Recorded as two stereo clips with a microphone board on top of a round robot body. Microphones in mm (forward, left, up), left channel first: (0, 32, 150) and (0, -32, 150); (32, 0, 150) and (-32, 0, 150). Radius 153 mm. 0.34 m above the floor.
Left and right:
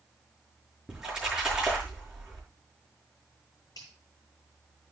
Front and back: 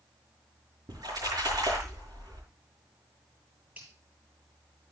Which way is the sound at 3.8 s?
115° left.